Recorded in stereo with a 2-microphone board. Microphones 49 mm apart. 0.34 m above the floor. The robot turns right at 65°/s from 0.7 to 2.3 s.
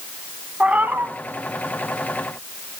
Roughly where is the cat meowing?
Right.